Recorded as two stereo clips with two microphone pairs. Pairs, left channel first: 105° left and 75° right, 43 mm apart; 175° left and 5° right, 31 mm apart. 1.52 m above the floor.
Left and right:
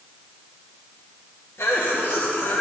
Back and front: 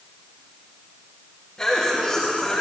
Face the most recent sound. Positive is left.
turn(degrees=100)